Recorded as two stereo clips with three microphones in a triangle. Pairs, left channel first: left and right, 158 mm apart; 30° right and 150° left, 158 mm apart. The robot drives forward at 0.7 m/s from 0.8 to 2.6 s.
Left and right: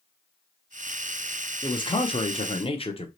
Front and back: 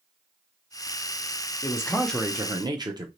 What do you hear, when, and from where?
1.6 s a man speaking: 30° left, 0.8 m; by 3.1 s 105° left, 0.6 m